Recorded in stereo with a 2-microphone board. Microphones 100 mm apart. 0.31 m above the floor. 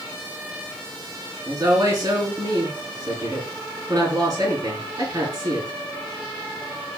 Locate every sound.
1.4 s a woman speaking: 35° right (ahead or behind), 4 m